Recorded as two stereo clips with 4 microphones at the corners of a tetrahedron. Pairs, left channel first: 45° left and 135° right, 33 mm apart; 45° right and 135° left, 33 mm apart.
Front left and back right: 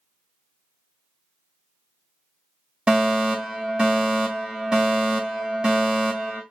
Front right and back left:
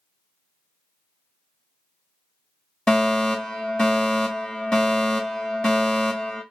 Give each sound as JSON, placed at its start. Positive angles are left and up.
{"t": 2.9, "sound": "a fire alarm", "azimuth_deg": -95, "distance_m": 1.9}